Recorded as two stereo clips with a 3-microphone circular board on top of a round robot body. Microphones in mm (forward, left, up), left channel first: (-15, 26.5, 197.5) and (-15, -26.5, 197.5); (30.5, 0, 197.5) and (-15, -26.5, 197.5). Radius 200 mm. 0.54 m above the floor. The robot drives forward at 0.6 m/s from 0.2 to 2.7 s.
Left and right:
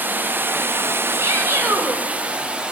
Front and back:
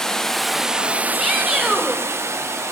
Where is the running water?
50° right, 0.9 m; by 2.7 s 155° right, 1.3 m.